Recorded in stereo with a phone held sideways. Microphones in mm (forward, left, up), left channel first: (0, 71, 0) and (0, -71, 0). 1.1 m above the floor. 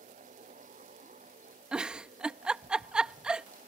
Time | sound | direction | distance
0.0 | a fan | 65° right (ahead or behind) | ?
1.7 | a giggle | 5° right (ahead or behind) | ?